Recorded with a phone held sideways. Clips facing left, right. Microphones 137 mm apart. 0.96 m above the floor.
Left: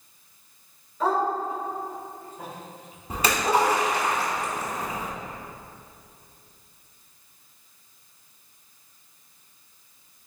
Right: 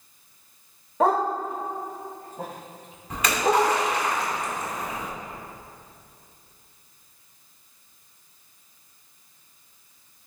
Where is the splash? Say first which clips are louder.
Right 1 dB; 35° left (ahead or behind), 2.5 m.